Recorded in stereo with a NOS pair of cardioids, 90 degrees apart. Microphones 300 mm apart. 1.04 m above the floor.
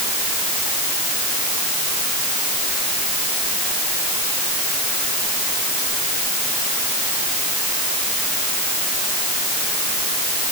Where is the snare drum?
No snare drum in this recording.